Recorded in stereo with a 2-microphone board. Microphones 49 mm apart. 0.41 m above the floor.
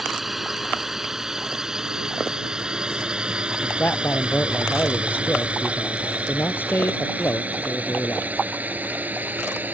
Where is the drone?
Centre (ahead or behind); by 9.8 s 30° right (ahead or behind).